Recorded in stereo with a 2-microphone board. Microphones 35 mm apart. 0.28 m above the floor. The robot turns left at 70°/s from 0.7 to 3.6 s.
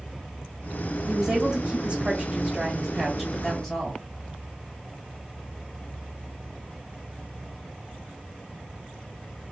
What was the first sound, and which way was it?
A woman speaking, 20° right (ahead or behind).